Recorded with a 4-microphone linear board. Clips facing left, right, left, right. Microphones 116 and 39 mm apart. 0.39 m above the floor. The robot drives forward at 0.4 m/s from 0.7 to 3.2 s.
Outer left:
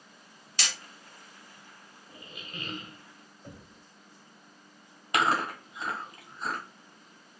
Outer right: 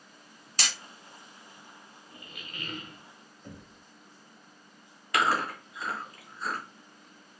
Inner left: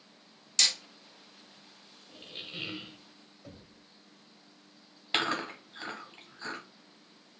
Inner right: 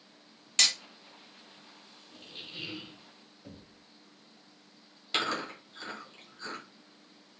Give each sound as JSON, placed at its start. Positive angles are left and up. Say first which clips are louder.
{"t": 0.6, "sound": "hammering", "louder": "outer right 1 dB, inner right 1 dB", "side_deg": -40, "distance_m": 1.2}
{"t": 2.1, "sound": "a squeak", "louder": "outer left 3 dB, inner left 2 dB", "side_deg": 25, "distance_m": 0.8}
{"t": 3.4, "sound": "knocking", "louder": "outer right 1 dB, inner right 1 dB", "side_deg": 5, "distance_m": 1.3}
{"t": 5.1, "sound": "chewing", "louder": "even, inner left 1 dB", "side_deg": 25, "distance_m": 1.6}